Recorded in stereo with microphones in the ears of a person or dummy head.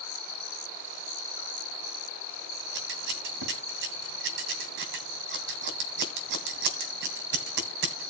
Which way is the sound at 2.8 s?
55° right (ahead or behind).